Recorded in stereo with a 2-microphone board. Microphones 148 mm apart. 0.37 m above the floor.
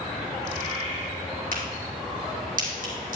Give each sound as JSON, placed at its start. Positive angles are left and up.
{"t": 1.5, "sound": "a crack", "side_deg": -75, "distance_m": 3.0}